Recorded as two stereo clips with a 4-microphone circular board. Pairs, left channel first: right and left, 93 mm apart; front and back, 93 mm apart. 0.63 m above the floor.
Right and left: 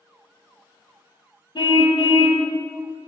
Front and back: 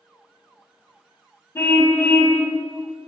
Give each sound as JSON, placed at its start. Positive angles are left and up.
{"t": 1.6, "sound": "a car horn", "azimuth_deg": -60, "distance_m": 2.5}